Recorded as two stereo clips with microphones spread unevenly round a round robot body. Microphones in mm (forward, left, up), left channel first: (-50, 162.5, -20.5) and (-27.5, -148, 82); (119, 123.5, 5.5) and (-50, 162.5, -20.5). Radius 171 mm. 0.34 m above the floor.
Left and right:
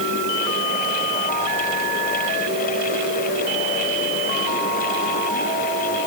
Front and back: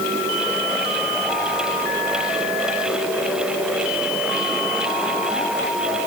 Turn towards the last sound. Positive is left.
No sound to turn to.